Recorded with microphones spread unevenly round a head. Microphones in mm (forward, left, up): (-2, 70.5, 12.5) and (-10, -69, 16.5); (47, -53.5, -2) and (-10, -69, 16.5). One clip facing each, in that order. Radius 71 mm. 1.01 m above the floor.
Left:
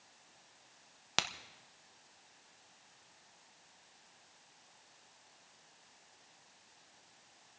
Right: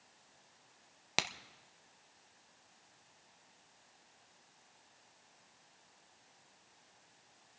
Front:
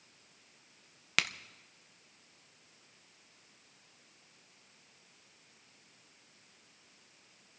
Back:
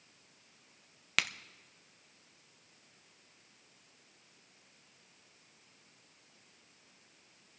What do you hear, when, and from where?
1.2 s a crack: 25° right, 0.6 m